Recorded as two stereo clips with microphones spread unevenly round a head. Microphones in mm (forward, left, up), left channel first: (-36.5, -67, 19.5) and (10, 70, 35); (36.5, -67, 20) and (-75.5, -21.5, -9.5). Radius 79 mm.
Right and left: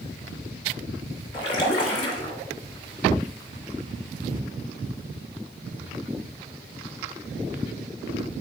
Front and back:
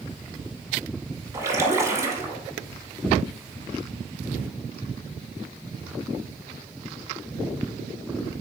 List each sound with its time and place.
1.3 s a splash: 130° right, 1.2 m